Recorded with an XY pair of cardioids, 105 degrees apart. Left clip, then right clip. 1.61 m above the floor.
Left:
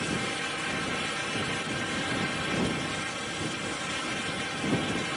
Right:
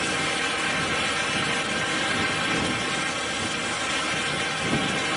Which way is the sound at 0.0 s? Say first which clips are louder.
Right 6 dB; 40° right.